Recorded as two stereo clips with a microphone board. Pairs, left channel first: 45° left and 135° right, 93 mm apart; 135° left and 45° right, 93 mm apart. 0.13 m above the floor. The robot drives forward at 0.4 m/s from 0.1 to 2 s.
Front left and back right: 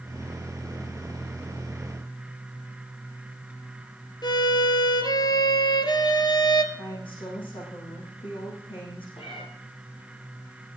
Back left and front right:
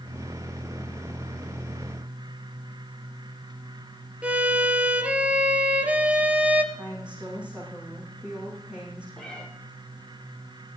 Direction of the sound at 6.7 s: 30° left.